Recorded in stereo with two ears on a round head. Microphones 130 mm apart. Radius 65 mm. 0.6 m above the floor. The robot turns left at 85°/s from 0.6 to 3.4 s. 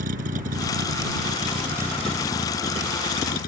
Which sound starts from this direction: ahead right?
A vehicle, at 0.0 s.